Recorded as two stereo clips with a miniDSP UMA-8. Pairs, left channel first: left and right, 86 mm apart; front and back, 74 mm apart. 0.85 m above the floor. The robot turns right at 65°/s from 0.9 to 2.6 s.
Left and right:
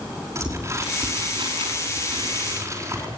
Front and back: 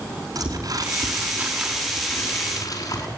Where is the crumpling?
145° right, 5 m; by 3.1 s 35° right, 5 m.